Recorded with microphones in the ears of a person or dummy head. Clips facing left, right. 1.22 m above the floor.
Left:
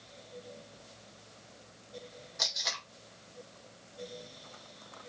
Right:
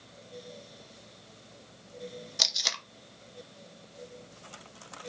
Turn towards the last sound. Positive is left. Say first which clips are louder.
# right 1 dB
turn(degrees=-45)  # may be behind; listen again after turning